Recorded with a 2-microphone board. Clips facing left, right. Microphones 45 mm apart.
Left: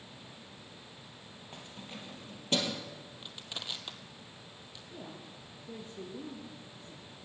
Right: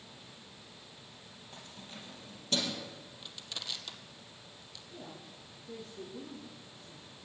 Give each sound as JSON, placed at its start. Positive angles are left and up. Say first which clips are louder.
{"t": 1.5, "sound": "keys jangling", "louder": "left 3 dB", "side_deg": 30, "distance_m": 3.5}
{"t": 3.2, "sound": "crushing", "louder": "left 1 dB", "side_deg": 20, "distance_m": 1.6}
{"t": 4.9, "sound": "a woman speaking", "louder": "left 1 dB", "side_deg": 20, "distance_m": 2.5}